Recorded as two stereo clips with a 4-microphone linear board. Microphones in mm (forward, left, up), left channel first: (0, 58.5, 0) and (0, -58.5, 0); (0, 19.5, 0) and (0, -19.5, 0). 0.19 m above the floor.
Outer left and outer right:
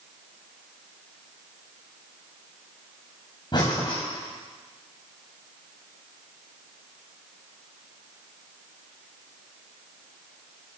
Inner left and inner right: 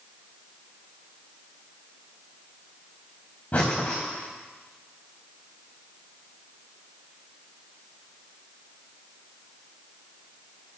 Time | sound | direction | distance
3.5 | breathing | 35° left (ahead or behind) | 4.5 m